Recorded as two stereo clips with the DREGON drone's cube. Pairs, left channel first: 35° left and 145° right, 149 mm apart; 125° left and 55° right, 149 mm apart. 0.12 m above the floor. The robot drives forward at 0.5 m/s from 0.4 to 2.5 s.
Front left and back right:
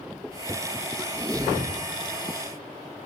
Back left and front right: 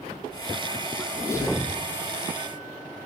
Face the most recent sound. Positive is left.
turn(degrees=175)